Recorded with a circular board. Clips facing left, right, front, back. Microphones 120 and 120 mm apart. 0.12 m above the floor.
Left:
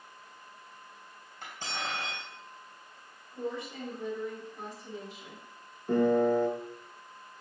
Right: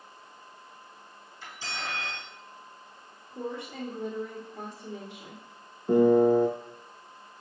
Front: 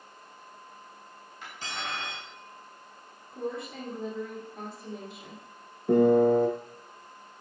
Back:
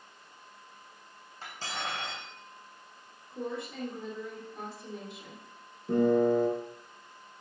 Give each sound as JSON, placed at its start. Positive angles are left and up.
{"t": 1.4, "sound": "cutlery clinking", "azimuth_deg": 125, "distance_m": 3.0}
{"t": 3.3, "sound": "a woman speaking", "azimuth_deg": -90, "distance_m": 2.5}
{"t": 5.9, "sound": "a piano", "azimuth_deg": -20, "distance_m": 0.8}